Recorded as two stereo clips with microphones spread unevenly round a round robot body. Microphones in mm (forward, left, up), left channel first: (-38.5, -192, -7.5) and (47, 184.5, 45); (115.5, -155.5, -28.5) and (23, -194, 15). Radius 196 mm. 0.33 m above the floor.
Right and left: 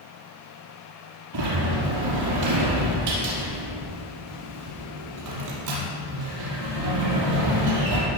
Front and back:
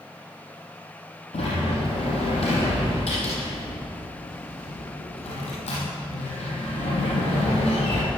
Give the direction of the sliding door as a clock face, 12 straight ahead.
11 o'clock.